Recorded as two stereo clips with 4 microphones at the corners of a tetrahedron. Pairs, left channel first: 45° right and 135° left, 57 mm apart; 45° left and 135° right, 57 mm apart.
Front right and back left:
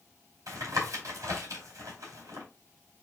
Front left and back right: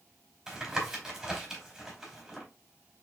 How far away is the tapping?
About 2.5 m.